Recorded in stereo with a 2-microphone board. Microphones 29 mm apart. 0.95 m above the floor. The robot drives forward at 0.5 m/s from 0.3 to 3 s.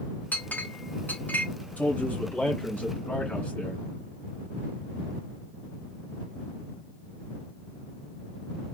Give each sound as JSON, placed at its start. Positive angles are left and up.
{"t": 0.3, "sound": "a clink", "side_deg": 75, "distance_m": 0.8}
{"t": 1.8, "sound": "a man speaking", "side_deg": 55, "distance_m": 1.5}